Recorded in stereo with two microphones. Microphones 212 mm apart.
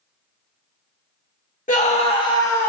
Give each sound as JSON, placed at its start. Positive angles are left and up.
{"t": 1.7, "sound": "a scream", "side_deg": 40, "distance_m": 1.0}